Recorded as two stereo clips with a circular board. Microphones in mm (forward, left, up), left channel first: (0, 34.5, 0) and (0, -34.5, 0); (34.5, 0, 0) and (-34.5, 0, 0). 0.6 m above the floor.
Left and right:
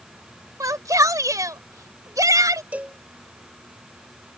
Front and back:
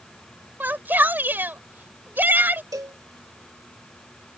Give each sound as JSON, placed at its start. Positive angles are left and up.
{"t": 0.6, "sound": "a shout", "azimuth_deg": -120}
{"t": 2.7, "sound": "a cowbell", "azimuth_deg": -160}